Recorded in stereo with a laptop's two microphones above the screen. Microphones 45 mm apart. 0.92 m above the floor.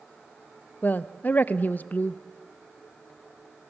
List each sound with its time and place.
0.8 s a woman speaking: 40° left (ahead or behind), 0.5 m